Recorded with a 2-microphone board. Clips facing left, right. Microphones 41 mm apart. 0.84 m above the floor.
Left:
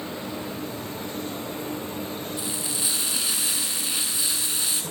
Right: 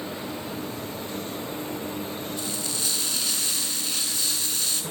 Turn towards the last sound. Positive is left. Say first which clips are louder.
# even
turn(degrees=15)  # may be behind; listen again after turning